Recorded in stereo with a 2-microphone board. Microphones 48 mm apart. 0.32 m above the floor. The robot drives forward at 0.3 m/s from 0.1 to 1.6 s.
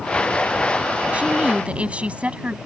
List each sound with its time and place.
1.1 s a woman speaking: 25° right (ahead or behind)